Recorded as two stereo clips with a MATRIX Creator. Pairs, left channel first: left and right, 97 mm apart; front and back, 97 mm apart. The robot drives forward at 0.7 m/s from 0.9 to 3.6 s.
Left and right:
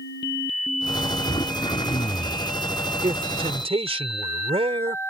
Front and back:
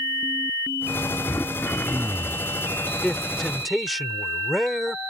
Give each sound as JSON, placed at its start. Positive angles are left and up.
{"t": 1.3, "sound": "throat clearing", "azimuth_deg": 65}
{"t": 3.0, "sound": "a man speaking", "azimuth_deg": -80}